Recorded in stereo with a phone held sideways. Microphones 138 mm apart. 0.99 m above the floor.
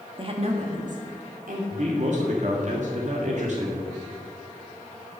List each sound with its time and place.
0.2 s a woman speaking: 40° right (ahead or behind), 1.6 m; by 1.6 s 75° right (ahead or behind), 3 m
1.7 s a man speaking: 60° right (ahead or behind), 1.8 m